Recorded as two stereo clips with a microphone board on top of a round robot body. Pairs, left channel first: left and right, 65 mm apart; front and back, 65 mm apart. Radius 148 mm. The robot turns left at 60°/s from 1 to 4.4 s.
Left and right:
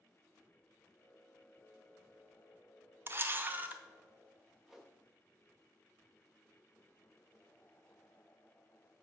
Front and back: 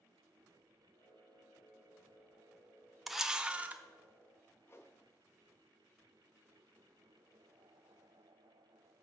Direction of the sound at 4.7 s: 10° right.